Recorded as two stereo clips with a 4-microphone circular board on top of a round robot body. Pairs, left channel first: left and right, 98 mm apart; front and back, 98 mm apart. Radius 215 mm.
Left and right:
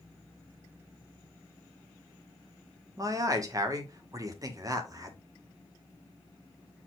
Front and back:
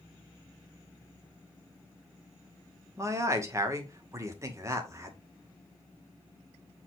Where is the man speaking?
130° right, 2 m.